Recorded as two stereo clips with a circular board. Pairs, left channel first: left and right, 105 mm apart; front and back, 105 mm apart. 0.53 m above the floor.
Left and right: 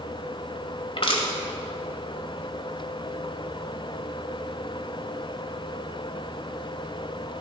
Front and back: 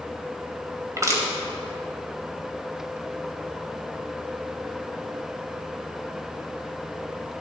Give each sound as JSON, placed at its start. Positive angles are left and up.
{"t": 1.0, "sound": "crushing", "azimuth_deg": 120, "distance_m": 1.9}